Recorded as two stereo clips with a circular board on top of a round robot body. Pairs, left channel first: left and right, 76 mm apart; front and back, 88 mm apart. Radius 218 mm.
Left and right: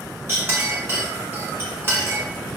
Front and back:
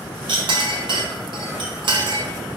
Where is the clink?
150° right, 0.8 m.